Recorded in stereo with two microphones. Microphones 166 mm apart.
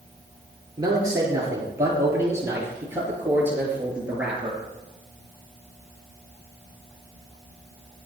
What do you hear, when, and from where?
0.8 s a man speaking: 20° right (ahead or behind), 6.5 m; by 4.6 s 5° right (ahead or behind), 7 m